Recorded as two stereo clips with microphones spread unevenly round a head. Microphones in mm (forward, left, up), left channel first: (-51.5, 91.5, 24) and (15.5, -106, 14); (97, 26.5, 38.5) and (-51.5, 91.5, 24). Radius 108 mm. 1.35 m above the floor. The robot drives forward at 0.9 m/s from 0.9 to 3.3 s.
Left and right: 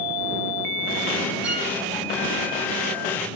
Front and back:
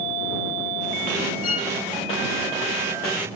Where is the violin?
15° left, 2.5 m.